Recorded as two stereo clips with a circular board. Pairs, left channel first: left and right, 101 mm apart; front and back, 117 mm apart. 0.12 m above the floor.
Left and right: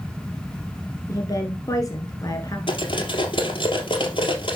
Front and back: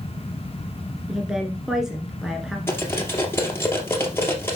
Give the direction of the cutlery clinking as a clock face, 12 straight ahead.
10 o'clock.